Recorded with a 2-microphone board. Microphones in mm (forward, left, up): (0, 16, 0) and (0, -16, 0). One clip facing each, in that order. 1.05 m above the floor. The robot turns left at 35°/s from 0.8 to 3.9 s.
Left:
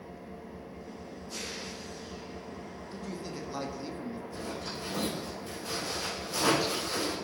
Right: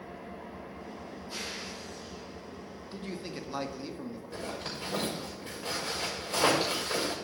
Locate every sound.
0.0 s an engine running: 140° right, 1.9 m; by 7.2 s 110° left, 1.9 m
2.9 s a man speaking: 135° right, 1.9 m; by 4.2 s 170° right, 1.9 m
4.3 s a zipper: 55° right (ahead or behind), 5.5 m